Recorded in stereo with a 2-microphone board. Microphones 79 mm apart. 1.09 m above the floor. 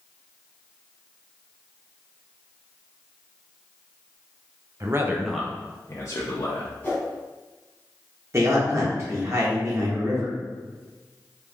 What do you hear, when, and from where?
4.8 s a man speaking: 40° right (ahead or behind), 0.6 m; by 6.7 s 55° left (ahead or behind), 0.9 m
6.8 s a whoosh: 25° left (ahead or behind), 1.6 m
8.3 s a man speaking: 35° right (ahead or behind), 1.2 m